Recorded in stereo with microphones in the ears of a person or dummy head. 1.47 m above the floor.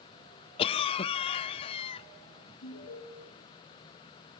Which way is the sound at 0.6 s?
30° left (ahead or behind).